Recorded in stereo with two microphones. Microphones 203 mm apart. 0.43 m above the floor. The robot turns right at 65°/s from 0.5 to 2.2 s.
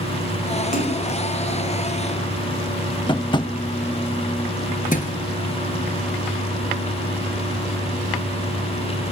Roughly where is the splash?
Left.